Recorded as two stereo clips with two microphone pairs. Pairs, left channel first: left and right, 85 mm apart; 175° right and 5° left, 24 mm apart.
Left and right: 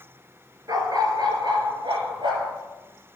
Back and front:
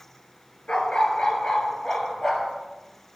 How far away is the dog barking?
About 1.6 m.